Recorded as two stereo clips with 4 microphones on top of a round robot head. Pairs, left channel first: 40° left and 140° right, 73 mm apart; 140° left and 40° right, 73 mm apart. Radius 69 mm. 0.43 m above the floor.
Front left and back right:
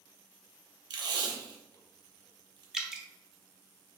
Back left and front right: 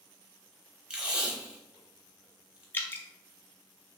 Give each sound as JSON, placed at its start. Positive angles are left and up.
{"t": 0.9, "sound": "tape being pulled", "azimuth_deg": -120, "distance_m": 0.9}
{"t": 2.7, "sound": "dripping", "azimuth_deg": 145, "distance_m": 0.8}